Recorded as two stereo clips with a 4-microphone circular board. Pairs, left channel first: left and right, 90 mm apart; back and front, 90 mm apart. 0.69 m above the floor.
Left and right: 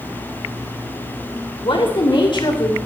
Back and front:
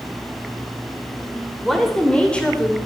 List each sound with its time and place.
1.6 s a woman speaking: 95° left, 3 m; by 2.8 s 110° left, 3 m